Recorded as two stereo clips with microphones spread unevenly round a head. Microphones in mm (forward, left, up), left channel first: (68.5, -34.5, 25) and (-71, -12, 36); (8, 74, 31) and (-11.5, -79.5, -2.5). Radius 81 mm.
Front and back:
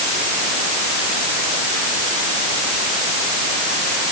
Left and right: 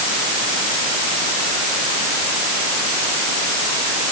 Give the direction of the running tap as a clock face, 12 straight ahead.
I don't hear a running tap.